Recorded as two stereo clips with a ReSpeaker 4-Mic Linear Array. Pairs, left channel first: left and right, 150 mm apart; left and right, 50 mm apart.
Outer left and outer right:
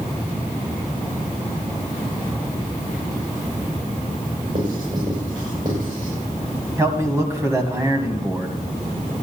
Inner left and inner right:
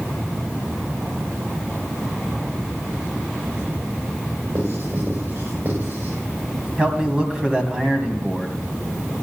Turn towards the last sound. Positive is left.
turn(degrees=-20)  # may be behind; listen again after turning